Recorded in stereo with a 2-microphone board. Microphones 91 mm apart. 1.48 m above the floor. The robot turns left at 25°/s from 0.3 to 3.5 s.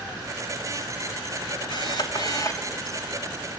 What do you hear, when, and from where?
1.7 s a camera shutter: 55° left (ahead or behind), 3 m; by 2.7 s 35° left (ahead or behind), 3 m